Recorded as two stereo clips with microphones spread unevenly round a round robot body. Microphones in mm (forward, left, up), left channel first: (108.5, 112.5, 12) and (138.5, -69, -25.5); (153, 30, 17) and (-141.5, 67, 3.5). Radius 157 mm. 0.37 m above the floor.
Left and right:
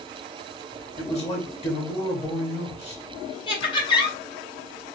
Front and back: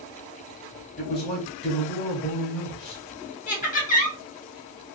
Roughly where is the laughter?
Ahead left.